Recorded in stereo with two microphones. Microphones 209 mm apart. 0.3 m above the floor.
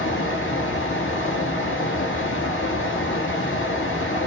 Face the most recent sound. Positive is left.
turn(degrees=80)